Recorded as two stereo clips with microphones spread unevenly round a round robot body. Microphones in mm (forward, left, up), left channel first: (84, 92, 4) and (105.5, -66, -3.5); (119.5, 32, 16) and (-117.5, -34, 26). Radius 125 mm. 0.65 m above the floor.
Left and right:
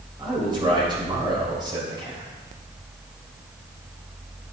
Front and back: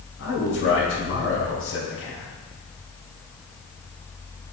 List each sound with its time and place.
0.2 s a man speaking: 20° right, 3.5 m